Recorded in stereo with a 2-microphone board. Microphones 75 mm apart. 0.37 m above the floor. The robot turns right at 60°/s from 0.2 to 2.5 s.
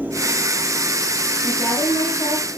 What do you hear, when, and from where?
1.4 s a woman speaking: 30° left, 6.5 m; by 2.5 s 95° left, 6.5 m